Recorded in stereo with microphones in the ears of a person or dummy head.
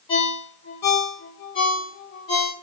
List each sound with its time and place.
0.1 s a ringtone: 20° left (ahead or behind), 0.6 m